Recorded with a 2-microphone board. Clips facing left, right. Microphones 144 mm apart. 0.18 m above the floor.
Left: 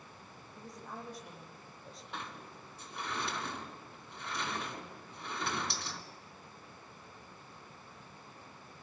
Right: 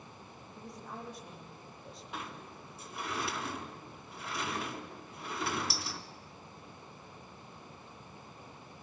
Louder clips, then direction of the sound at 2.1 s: Right 1 dB; 5° right (ahead or behind).